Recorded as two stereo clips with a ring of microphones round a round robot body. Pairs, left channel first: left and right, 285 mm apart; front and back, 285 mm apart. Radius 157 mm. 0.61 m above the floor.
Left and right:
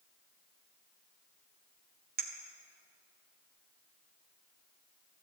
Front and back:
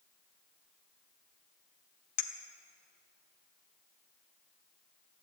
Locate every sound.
2.2 s a clink: 30° right, 1.3 m